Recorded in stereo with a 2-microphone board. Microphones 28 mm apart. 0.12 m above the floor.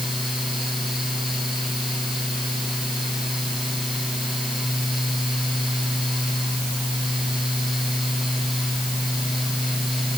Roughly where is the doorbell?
No doorbell in this recording.